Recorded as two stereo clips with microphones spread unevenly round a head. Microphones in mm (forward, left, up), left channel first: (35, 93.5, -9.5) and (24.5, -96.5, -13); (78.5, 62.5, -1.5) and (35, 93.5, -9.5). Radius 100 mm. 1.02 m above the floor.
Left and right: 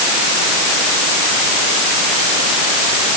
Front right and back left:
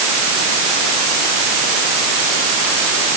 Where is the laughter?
No laughter in this recording.